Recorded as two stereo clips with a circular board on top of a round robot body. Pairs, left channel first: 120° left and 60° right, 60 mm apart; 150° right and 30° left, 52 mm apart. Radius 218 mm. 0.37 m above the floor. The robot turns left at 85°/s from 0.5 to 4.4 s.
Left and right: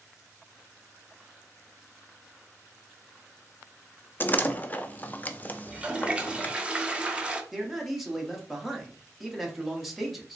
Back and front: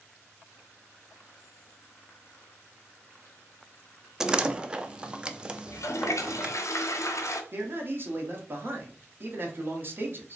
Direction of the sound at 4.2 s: 105° left.